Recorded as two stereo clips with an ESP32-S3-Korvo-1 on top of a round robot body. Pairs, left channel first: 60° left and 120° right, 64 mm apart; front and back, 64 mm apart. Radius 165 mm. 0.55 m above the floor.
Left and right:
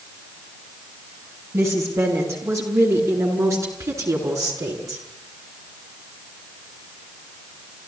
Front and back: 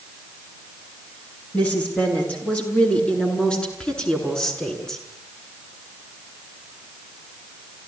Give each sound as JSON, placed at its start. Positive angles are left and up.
{"t": 1.5, "sound": "a woman speaking", "azimuth_deg": -70, "distance_m": 9.0}